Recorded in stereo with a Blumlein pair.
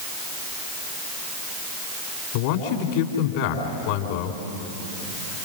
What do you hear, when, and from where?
2.3 s a man speaking: 50° left, 3.5 m